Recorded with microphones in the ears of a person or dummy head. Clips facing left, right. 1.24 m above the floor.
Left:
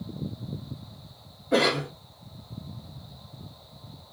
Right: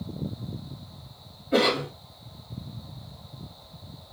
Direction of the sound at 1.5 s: 65° left (ahead or behind).